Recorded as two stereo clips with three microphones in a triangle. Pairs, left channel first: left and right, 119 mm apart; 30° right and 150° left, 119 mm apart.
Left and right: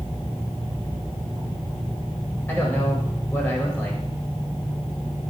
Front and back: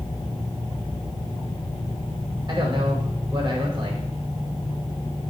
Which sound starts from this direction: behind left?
A man speaking, at 2.5 s.